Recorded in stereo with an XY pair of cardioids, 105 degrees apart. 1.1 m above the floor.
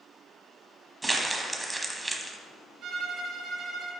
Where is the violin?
65° right, 2.5 m.